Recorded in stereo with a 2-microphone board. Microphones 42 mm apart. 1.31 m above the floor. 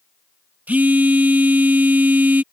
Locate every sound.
0.7 s a phone buzzing: 45° right (ahead or behind)